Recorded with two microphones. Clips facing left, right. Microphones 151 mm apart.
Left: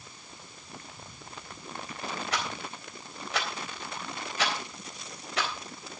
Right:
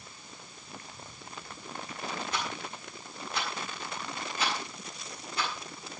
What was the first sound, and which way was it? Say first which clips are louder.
A rattle: left 1 dB; 70° left (ahead or behind).